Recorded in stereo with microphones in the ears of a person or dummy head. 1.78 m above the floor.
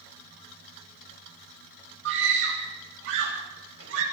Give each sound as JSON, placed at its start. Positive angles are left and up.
{"t": 2.0, "sound": "a scream", "side_deg": -65, "distance_m": 10.0}